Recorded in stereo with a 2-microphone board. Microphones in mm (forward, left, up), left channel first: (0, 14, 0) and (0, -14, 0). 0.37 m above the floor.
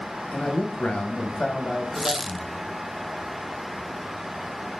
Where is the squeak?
20° right (ahead or behind), 1.0 m.